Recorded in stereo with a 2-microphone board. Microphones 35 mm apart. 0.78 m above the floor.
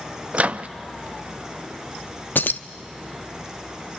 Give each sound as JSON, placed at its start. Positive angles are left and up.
{"t": 0.3, "sound": "a microwave", "side_deg": -45, "distance_m": 0.5}
{"t": 2.4, "sound": "keys jangling", "side_deg": 75, "distance_m": 0.5}